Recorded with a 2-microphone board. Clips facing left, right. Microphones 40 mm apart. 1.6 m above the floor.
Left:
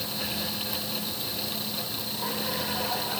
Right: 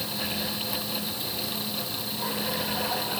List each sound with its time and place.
Only background noise.